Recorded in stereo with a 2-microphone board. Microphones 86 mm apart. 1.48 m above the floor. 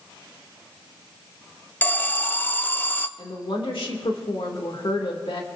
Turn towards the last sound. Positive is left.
turn(degrees=80)